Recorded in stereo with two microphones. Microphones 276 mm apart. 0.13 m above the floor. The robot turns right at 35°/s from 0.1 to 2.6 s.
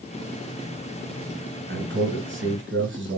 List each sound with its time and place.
1.7 s a man speaking: 120° right, 2 m; by 3.2 s 85° right, 2 m